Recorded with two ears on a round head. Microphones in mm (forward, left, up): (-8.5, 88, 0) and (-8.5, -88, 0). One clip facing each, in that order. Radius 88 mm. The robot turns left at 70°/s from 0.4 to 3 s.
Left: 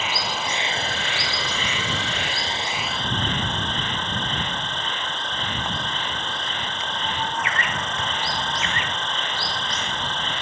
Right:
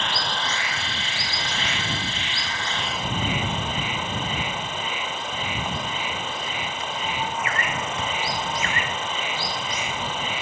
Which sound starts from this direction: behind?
An insect, at 0.0 s.